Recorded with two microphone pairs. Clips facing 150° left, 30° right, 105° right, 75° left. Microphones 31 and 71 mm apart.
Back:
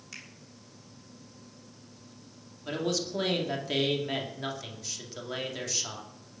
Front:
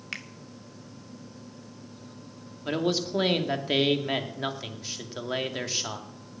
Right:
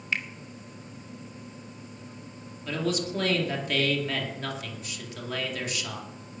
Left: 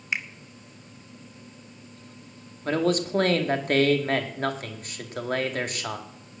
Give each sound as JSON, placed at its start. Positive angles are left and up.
{"t": 0.1, "sound": "a finger snap", "azimuth_deg": 5, "distance_m": 1.4}
{"t": 2.6, "sound": "a man speaking", "azimuth_deg": 35, "distance_m": 2.0}